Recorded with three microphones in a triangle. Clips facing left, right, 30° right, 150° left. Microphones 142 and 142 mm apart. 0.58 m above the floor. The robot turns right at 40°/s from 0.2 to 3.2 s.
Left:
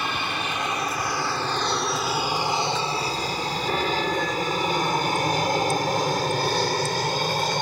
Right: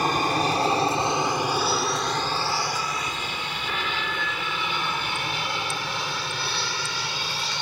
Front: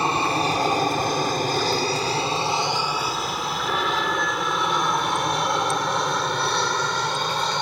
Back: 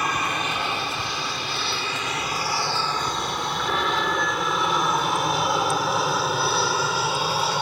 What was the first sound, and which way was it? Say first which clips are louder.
An aircraft: right 6 dB, front 4 dB; 75° right.